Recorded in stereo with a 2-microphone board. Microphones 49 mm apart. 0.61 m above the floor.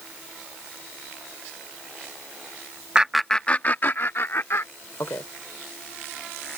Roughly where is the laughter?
Centre.